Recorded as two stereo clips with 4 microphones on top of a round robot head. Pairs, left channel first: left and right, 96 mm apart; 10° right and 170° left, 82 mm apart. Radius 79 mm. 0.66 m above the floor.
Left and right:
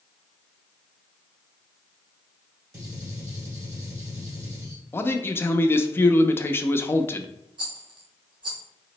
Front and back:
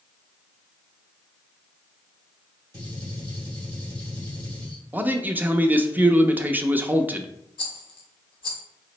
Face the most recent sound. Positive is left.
turn(degrees=-40)